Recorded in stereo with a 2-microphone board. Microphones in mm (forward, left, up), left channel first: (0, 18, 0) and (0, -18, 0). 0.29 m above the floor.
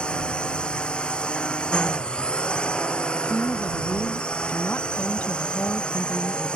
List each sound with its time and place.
0.0 s a drone: 25° left (ahead or behind)
3.1 s a woman speaking: 55° left (ahead or behind)